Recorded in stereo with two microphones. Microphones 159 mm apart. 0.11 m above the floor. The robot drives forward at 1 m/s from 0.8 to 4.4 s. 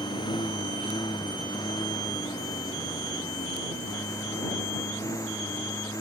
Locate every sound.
0.0 s a lawn mower: 25° left (ahead or behind); by 6.0 s 20° left (ahead or behind)